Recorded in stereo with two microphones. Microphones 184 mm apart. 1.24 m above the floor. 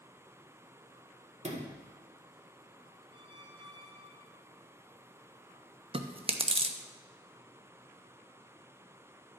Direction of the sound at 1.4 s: 35° right (ahead or behind).